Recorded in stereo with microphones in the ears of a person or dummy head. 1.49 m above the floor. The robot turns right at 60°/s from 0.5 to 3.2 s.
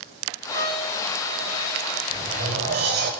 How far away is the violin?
About 4 m.